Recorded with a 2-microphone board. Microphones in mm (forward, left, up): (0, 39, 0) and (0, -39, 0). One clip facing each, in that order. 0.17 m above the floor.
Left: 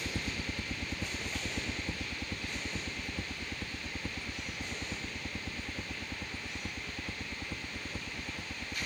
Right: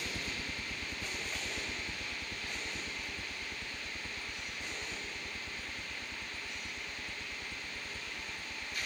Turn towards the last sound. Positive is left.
turn(degrees=45)  # may be behind; listen again after turning